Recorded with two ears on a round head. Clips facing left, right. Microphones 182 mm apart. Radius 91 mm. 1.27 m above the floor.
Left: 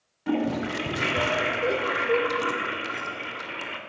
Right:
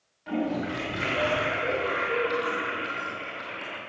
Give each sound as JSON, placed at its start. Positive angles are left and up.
{"t": 0.3, "sound": "a toilet flushing", "side_deg": 60, "distance_m": 2.0}